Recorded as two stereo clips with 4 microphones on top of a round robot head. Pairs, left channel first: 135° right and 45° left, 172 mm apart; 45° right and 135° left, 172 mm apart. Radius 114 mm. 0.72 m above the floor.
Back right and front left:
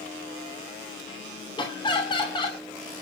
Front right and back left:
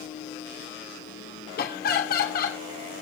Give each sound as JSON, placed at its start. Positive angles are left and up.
{"t": 1.6, "sound": "laughter", "azimuth_deg": -70, "distance_m": 2.5}